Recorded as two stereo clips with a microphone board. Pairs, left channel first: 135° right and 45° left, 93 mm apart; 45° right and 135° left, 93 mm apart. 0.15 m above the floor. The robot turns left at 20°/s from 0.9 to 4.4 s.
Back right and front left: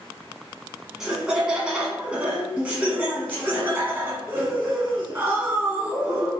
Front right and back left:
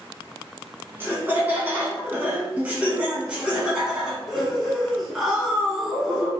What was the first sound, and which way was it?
Laughter, 125° left.